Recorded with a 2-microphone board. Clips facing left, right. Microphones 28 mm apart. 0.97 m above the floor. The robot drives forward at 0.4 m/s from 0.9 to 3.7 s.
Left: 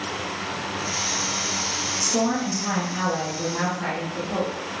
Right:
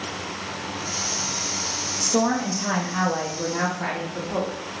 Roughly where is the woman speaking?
Right.